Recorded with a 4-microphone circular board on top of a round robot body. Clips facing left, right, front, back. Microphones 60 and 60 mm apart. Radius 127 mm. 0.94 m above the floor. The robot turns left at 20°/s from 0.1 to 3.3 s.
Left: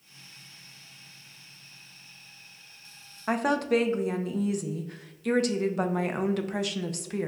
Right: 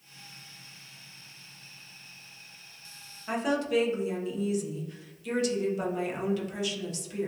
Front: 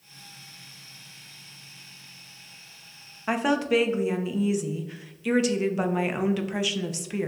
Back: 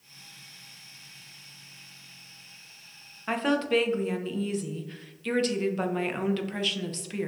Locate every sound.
3.3 s a woman speaking: 75° left, 0.5 m